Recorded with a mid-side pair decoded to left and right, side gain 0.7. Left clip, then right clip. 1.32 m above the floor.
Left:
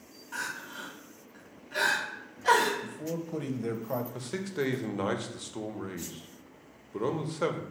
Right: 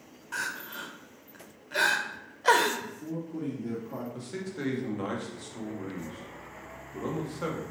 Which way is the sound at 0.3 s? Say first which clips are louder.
Right 2 dB; 25° right.